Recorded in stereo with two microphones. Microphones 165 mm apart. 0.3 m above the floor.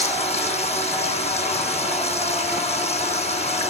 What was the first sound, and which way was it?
Running water, 40° left (ahead or behind).